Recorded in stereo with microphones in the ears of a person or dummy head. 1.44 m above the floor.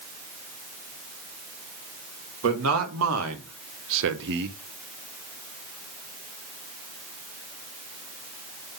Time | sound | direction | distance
2.4 | a man speaking | 85° right | 1.9 m